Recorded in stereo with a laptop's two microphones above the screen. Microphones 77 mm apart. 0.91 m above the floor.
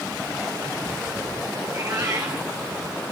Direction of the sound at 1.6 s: 50° right (ahead or behind).